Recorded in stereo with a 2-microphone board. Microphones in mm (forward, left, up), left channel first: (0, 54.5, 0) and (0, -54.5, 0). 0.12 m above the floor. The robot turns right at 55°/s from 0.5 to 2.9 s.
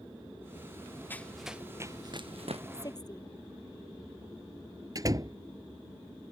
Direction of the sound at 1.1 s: 20° left (ahead or behind).